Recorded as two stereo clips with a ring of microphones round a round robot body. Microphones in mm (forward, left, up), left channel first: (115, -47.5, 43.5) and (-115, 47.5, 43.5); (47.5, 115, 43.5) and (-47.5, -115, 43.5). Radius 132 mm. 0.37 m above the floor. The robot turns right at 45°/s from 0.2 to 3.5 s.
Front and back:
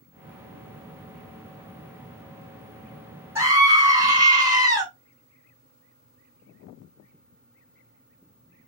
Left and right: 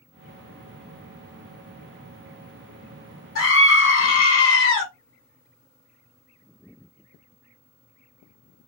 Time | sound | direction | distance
3.4 | a scream | 80° left | 2.5 m